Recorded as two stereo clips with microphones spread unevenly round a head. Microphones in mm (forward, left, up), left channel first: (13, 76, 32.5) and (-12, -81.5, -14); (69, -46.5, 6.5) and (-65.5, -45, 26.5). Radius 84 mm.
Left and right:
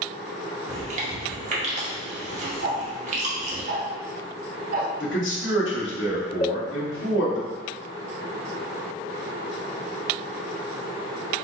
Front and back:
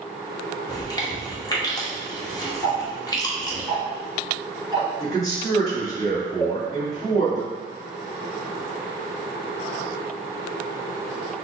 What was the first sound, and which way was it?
Chewing, 60° right.